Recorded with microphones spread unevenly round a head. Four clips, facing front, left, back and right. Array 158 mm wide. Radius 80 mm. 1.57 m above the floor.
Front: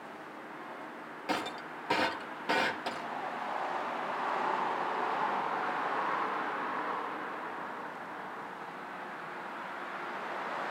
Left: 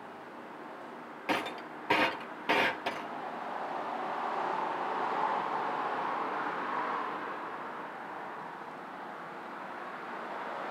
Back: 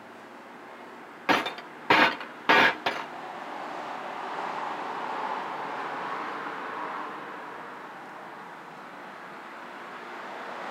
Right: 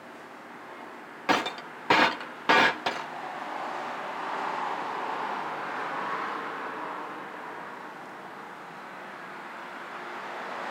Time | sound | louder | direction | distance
1.3 | breaking glass | right 7 dB, back 9 dB | 135° right | 0.7 m